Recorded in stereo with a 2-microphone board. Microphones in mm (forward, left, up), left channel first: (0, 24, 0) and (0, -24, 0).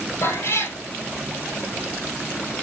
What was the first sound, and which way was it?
A cat meowing, 60° left (ahead or behind).